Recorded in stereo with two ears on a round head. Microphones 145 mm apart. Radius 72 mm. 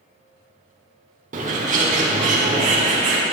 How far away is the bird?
About 1.1 m.